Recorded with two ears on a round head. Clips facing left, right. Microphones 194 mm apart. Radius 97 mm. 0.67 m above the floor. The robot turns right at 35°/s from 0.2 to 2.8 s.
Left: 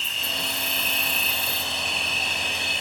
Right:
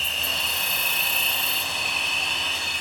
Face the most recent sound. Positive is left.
turn(degrees=25)